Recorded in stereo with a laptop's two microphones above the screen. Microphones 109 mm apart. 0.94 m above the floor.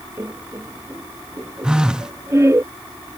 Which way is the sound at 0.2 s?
25° right (ahead or behind).